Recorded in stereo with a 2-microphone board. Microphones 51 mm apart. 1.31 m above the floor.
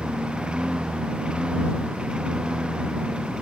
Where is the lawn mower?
15° right (ahead or behind).